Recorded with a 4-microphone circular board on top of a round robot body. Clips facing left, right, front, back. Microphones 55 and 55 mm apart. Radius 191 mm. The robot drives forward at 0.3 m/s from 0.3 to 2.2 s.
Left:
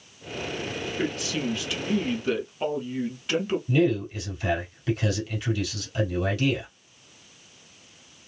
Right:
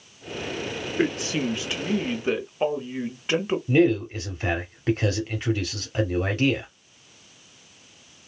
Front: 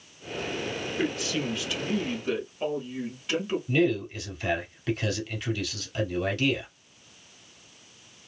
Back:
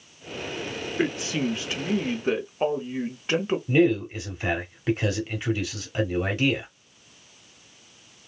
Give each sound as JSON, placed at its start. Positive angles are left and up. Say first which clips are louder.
{"t": 1.0, "sound": "a man speaking", "louder": "right 5 dB, back 4 dB", "azimuth_deg": -130, "distance_m": 1.1}
{"t": 3.7, "sound": "a man speaking", "louder": "right 4 dB, back 4 dB", "azimuth_deg": -125, "distance_m": 1.9}